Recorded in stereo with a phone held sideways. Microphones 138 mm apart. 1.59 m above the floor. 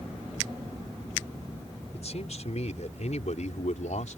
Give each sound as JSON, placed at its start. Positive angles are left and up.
{"t": 1.9, "sound": "a man speaking", "side_deg": 55}